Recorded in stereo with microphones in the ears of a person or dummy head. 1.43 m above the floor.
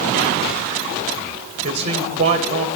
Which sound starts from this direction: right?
A man speaking, at 1.6 s.